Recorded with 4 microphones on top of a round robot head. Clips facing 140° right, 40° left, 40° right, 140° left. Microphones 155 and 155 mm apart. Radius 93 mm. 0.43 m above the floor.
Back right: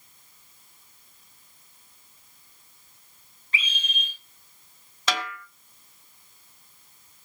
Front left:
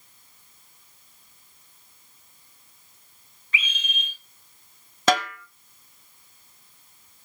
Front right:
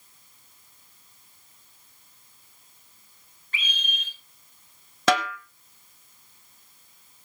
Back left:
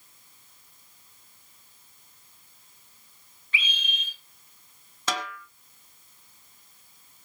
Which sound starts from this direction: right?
A scream, at 3.5 s.